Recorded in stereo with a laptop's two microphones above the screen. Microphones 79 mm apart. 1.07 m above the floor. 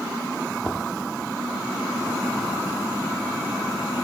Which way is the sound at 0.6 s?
15° left (ahead or behind).